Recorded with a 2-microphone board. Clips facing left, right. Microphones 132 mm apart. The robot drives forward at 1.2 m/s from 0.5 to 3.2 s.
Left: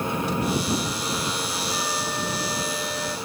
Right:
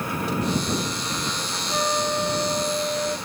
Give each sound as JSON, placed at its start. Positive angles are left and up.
{"t": 1.7, "sound": "a flute", "side_deg": -50}